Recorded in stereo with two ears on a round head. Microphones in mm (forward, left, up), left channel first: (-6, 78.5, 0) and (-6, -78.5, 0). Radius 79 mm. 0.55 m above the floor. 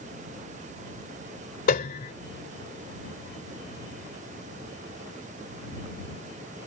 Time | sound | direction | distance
1.7 | a piano | 50° left (ahead or behind) | ?